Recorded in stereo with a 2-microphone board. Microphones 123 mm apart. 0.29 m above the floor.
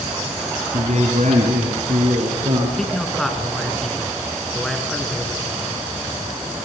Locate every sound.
0.7 s a man speaking: 60° right (ahead or behind), 2.5 m; by 2.7 s 75° right (ahead or behind), 5 m
2.8 s a man speaking: 5° left (ahead or behind), 4 m